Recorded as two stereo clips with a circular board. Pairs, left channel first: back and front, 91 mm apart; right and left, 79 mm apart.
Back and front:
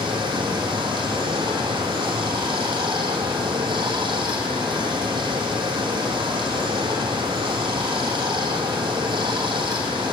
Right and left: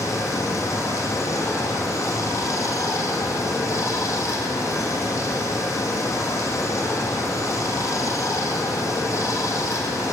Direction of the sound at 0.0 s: 35° right.